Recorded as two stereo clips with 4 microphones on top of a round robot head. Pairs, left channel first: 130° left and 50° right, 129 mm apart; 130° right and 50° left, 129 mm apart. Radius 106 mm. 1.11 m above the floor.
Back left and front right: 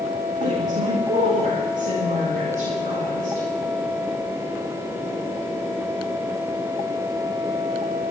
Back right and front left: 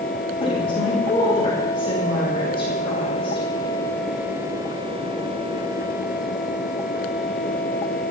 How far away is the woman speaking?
About 7.5 m.